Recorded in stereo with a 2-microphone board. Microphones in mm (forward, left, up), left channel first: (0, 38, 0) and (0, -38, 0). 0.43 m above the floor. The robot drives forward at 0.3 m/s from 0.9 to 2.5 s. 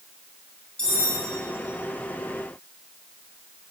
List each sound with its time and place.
0.8 s cutlery clinking: 10° left (ahead or behind), 1.5 m